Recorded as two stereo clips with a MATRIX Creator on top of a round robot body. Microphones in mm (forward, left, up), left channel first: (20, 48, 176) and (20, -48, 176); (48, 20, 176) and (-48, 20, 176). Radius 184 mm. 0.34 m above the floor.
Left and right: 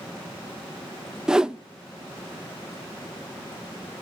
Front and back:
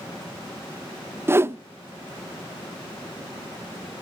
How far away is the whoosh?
About 0.6 m.